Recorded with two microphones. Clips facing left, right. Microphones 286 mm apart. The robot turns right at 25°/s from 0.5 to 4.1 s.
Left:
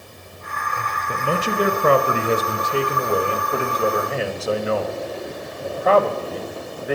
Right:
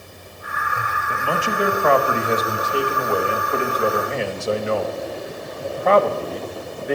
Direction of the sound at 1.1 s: 100° left.